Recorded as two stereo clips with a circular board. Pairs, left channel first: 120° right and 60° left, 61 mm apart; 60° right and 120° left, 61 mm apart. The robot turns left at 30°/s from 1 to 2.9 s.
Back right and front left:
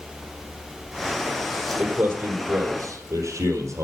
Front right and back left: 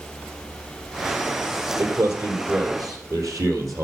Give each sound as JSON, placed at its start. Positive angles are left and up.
{"t": 1.8, "sound": "a man speaking", "azimuth_deg": 125, "distance_m": 3.0}